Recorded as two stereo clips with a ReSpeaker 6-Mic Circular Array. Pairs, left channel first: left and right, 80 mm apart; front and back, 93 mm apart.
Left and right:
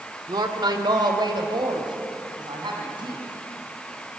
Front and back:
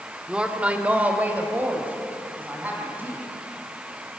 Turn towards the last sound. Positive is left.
turn(degrees=-110)